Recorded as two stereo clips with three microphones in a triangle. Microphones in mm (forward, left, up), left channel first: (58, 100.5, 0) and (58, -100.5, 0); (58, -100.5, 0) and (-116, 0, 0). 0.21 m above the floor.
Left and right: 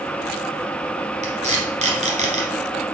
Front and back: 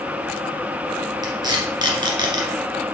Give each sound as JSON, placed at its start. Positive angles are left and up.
{"t": 1.2, "sound": "tape being pulled", "azimuth_deg": -140, "distance_m": 1.8}